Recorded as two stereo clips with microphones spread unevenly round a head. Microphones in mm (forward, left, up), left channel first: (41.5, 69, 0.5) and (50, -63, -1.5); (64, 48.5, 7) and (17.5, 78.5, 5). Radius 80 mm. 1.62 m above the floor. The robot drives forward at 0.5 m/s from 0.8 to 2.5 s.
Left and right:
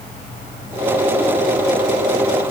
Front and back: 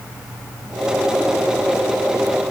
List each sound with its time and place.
Only background noise.